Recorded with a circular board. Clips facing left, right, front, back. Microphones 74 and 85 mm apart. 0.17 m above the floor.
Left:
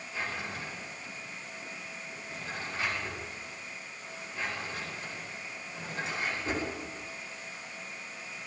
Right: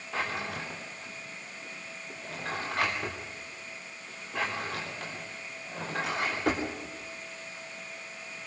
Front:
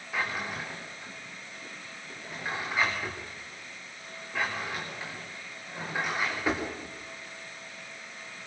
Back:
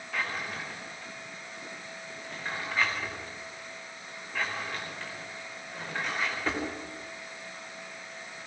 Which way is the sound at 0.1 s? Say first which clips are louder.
Right 4 dB, front 2 dB; 80° right.